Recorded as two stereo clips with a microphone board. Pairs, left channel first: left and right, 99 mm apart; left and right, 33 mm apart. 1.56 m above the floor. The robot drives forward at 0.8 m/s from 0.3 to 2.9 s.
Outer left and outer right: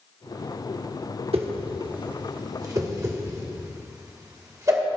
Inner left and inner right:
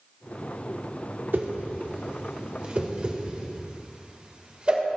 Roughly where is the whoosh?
Right.